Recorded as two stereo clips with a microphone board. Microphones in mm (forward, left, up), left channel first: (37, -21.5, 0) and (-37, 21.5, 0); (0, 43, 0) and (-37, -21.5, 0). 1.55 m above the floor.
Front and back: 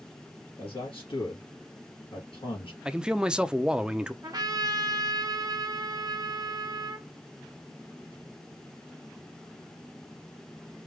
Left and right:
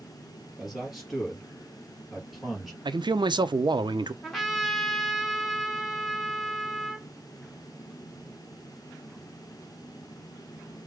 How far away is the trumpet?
About 1.2 m.